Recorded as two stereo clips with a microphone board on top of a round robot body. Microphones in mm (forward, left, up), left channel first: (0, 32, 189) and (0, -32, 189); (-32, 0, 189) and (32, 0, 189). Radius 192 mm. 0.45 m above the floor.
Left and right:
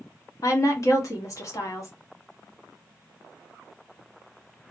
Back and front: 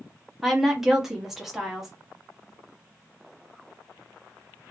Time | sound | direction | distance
0.4 | a woman speaking | 80° left | 1.7 m